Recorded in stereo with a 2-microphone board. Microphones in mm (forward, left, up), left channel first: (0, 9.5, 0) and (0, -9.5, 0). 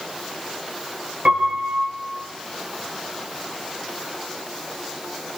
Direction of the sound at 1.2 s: 65° right (ahead or behind).